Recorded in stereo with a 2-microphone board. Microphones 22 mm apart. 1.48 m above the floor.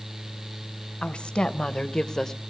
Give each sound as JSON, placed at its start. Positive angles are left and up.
{"t": 1.0, "sound": "a woman speaking", "side_deg": 55, "distance_m": 1.2}